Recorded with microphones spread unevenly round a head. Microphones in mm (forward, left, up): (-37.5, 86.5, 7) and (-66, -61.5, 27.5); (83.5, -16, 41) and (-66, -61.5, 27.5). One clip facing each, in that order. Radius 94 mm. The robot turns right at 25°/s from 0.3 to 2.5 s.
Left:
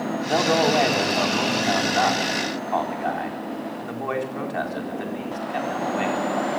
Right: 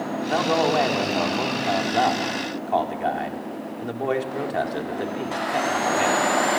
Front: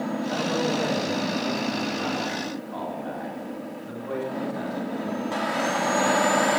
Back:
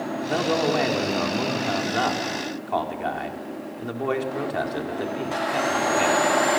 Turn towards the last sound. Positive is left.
turn(degrees=-155)